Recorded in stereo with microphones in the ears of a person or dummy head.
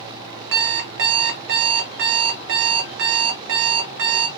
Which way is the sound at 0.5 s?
60° right (ahead or behind).